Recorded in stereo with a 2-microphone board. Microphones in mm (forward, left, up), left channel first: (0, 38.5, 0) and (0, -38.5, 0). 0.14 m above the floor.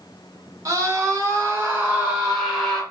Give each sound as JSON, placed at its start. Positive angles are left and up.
{"t": 0.7, "sound": "a scream", "side_deg": -45, "distance_m": 1.5}